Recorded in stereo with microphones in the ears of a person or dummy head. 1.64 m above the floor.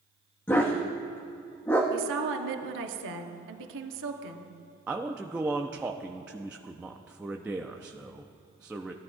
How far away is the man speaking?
About 0.6 m.